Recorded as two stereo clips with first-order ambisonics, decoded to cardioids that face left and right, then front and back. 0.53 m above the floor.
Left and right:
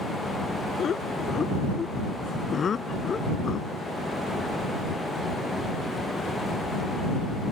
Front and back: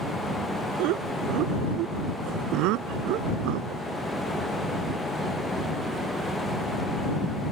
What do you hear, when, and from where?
0.8 s laughter: 155° left; by 3.8 s 160° left